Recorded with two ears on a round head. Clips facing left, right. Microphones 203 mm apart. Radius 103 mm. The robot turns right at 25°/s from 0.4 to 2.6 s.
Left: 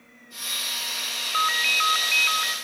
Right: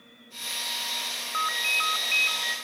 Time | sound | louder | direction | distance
1.3 | a ringtone | left 4 dB | 140° left | 1.6 m